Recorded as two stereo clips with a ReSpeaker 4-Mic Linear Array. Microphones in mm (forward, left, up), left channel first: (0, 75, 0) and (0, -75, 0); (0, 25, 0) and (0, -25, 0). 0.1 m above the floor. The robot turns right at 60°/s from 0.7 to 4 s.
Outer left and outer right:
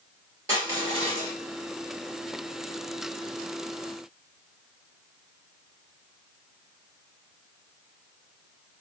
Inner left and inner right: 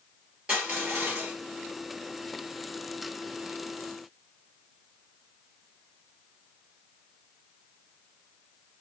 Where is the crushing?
150° right, 2.5 m; by 1.3 s 115° right, 2.5 m.